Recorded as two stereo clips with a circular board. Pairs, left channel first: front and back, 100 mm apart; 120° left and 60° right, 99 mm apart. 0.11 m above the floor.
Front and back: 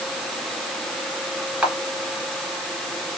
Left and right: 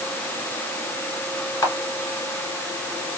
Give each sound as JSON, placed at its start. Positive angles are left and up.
{"t": 1.6, "sound": "a camera shutter", "azimuth_deg": 120, "distance_m": 1.9}